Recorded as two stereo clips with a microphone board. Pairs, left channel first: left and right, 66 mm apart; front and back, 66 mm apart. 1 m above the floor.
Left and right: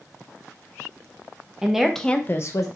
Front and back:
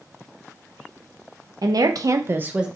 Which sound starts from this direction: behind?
A woman speaking, at 1.6 s.